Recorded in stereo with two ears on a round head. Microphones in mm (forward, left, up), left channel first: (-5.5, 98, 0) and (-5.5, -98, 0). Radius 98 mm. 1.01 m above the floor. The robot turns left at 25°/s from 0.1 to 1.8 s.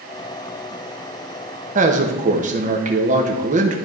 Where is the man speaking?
35° right (ahead or behind), 1.1 m.